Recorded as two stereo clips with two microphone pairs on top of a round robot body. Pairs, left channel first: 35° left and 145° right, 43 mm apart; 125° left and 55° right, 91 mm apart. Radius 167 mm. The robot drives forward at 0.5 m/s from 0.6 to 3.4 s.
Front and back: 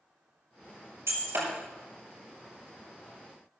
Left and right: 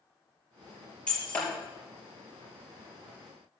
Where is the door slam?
No door slam in this recording.